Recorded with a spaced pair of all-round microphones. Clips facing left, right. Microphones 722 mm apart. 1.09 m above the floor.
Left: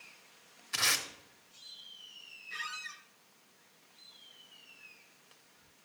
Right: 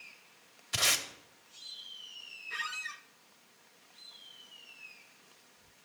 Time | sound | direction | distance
0.7 | tape being pulled | 60° right (ahead or behind) | 1.2 m
2.5 | a squeak | 75° right (ahead or behind) | 1.0 m